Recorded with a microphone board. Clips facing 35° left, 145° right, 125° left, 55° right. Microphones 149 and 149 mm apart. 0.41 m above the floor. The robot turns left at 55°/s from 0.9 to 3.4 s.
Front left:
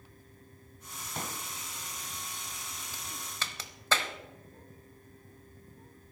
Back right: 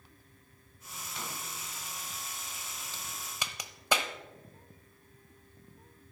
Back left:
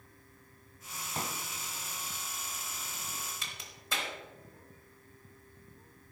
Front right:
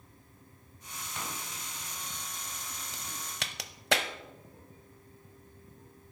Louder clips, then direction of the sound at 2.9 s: Even, front right 2 dB; 45° right.